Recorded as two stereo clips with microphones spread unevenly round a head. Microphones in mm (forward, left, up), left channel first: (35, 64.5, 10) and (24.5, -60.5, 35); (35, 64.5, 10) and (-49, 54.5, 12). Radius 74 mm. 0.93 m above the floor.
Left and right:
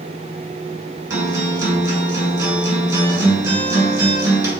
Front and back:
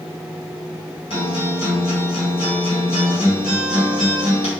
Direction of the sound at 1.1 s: 35° right.